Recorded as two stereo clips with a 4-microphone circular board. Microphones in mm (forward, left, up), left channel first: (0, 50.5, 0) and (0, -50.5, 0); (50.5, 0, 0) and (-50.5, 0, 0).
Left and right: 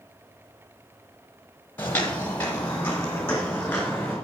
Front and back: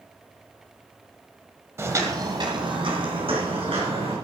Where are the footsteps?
145° left, 1.5 m; by 4.1 s 165° left, 4.5 m.